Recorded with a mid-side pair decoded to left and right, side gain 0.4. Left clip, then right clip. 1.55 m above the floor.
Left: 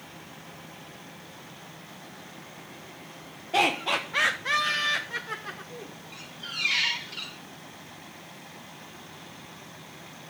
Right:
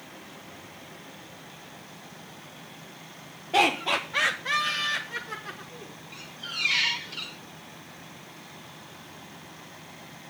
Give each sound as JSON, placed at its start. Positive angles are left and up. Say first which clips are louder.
{"t": 3.5, "sound": "laughter", "louder": "right 1 dB", "azimuth_deg": -15, "distance_m": 1.3}
{"t": 6.1, "sound": "a squeak", "louder": "right 1 dB", "azimuth_deg": 0, "distance_m": 2.5}